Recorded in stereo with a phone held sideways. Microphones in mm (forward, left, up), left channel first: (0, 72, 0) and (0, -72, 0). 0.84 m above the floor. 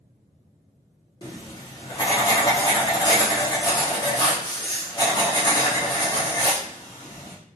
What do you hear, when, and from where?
1.2 s writing: 30° left (ahead or behind), 0.7 m